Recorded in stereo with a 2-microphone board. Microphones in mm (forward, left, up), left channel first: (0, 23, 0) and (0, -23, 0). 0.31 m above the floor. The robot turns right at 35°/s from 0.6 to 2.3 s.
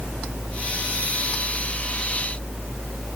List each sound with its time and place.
Only background noise.